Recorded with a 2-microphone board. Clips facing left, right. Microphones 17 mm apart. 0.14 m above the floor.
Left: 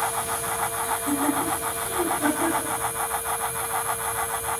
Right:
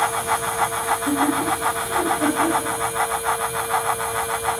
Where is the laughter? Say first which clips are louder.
Right 3 dB; 65° right (ahead or behind), 4 m; by 2.7 s 55° right (ahead or behind), 4 m.